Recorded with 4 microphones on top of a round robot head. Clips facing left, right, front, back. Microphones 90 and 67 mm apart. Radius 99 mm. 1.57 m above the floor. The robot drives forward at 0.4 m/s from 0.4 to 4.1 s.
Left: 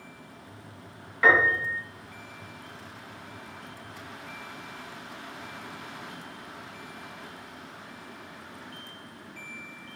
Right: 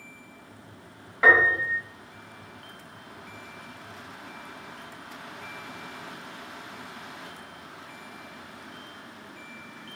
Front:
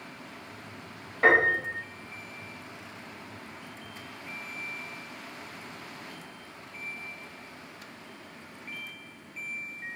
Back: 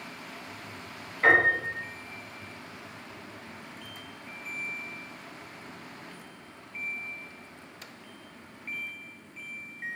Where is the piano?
15° right, 1.3 m; by 1.8 s 20° right, 1.1 m.